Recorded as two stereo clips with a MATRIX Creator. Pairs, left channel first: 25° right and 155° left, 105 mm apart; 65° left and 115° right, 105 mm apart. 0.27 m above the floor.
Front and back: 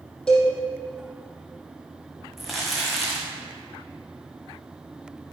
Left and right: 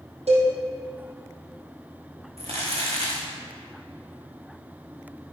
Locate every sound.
0.3 s a cowbell: 105° right, 4 m
2.4 s crumpling: 115° right, 3.5 m